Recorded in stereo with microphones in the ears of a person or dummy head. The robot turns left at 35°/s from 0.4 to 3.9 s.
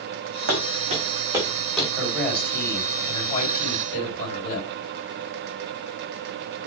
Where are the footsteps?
65° right (ahead or behind), 4 m; by 1.9 s centre (ahead or behind), 4 m.